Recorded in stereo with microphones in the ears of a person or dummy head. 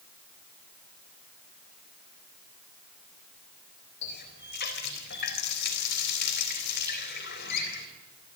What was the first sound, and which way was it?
A running tap, 55° left (ahead or behind).